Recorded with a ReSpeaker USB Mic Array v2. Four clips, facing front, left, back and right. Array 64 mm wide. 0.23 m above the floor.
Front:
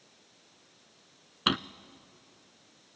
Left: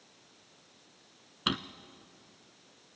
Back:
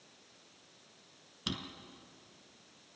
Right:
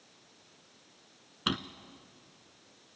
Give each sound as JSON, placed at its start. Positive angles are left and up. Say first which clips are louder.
{"t": 1.5, "sound": "a drawer", "louder": "even, front 12 dB", "azimuth_deg": 5, "distance_m": 0.5}